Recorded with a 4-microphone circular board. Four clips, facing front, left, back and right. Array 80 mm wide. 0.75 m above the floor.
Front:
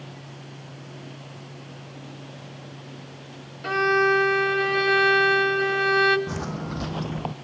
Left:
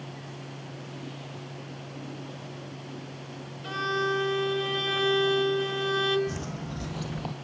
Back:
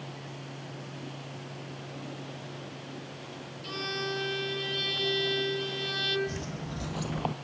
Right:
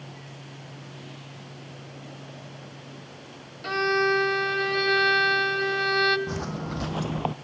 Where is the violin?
25° right, 1.7 m.